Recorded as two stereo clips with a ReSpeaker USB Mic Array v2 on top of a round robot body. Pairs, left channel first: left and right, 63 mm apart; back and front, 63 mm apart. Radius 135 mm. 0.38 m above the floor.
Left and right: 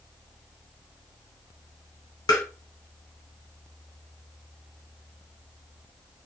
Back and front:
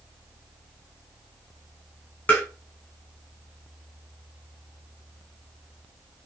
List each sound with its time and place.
2.3 s tapping: 115° left, 0.6 m